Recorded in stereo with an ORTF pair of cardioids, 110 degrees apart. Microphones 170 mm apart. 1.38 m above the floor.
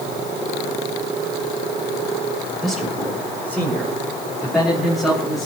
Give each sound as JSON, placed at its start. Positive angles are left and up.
{"t": 2.6, "sound": "a man speaking", "azimuth_deg": -5, "distance_m": 6.5}